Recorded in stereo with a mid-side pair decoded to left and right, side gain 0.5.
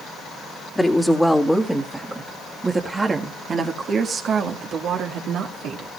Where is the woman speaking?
10° left, 2 m; by 5.9 s 75° right, 2.5 m.